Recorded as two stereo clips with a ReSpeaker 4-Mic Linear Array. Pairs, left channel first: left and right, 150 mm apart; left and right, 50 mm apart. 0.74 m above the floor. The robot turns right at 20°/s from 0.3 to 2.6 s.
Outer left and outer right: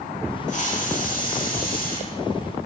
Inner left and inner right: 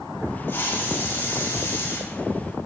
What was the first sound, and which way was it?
A hiss, 55° left.